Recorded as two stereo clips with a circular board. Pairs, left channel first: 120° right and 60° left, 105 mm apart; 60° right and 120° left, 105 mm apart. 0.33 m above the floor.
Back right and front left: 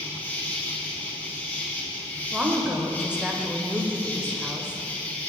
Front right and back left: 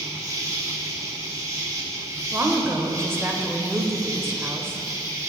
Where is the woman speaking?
125° left, 0.9 m.